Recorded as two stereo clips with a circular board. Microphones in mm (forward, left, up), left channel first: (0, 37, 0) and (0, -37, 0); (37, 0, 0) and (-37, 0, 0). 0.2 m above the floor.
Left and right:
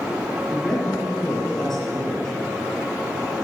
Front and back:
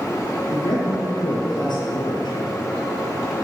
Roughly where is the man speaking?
Ahead.